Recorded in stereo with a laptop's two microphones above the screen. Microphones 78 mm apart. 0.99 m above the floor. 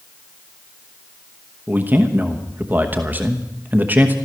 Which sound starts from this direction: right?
A man speaking, at 1.7 s.